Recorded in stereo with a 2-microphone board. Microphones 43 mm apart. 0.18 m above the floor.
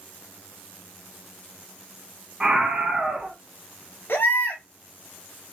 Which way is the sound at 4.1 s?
65° left (ahead or behind).